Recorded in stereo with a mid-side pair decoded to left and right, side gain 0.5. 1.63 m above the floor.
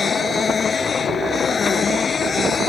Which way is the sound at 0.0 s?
35° left.